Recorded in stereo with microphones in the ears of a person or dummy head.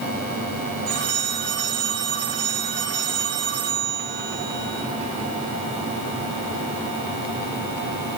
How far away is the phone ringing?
About 3.5 m.